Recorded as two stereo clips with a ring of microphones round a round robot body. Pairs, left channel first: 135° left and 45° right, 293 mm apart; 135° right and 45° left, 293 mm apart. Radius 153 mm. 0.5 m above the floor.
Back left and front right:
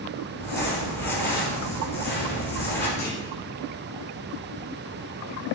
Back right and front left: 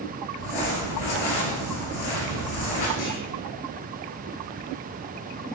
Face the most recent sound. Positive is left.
turn(degrees=-155)